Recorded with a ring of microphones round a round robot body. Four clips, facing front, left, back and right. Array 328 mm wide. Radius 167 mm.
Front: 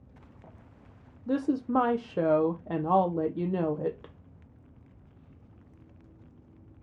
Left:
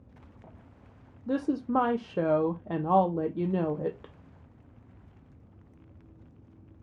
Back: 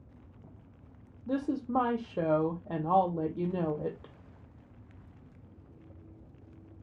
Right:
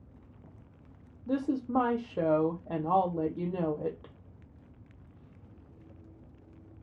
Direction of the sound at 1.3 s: 45° left.